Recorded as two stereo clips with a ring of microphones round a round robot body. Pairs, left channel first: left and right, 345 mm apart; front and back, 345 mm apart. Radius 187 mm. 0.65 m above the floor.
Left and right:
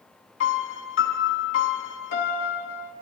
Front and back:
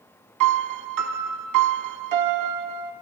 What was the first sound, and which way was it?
A piano, 145° left.